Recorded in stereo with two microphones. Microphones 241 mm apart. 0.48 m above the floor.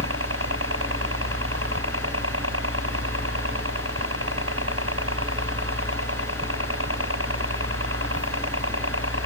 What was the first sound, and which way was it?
A helicopter, 65° right (ahead or behind).